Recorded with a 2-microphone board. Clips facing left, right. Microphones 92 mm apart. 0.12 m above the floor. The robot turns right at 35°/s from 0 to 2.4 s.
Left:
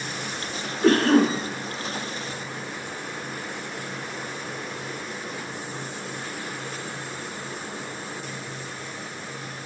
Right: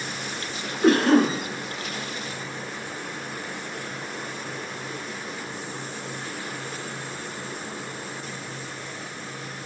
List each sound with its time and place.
0.8 s a cough: 15° right (ahead or behind), 1.2 m; by 1.4 s 5° right (ahead or behind), 1.2 m